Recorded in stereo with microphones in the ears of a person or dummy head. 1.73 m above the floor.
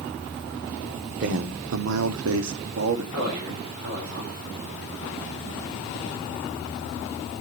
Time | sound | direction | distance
1.2 | a man speaking | 55° right (ahead or behind) | 1.0 m
3.1 | a man speaking | 75° right (ahead or behind) | 5 m